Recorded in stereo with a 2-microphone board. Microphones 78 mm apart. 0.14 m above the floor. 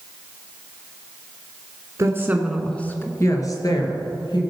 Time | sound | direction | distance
2.0 | a woman speaking | 40° right (ahead or behind) | 1.4 m